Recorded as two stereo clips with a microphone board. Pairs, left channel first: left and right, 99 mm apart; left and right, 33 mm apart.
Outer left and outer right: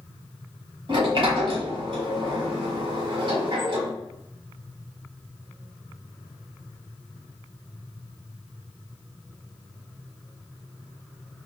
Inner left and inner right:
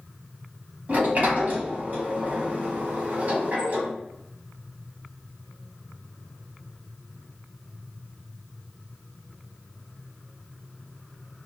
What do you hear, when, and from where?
0.9 s a sliding door: 60° right (ahead or behind), 1.2 m